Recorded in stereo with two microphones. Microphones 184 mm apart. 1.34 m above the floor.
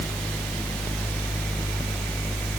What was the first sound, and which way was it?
Only background noise.